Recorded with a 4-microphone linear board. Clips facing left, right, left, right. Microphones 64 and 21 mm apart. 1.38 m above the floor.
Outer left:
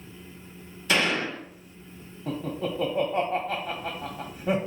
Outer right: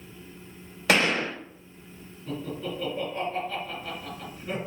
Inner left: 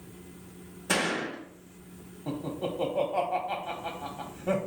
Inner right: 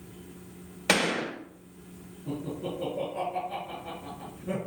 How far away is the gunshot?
About 2 m.